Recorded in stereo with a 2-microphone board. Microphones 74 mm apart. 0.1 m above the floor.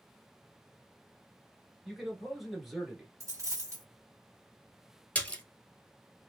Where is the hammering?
I don't hear hammering.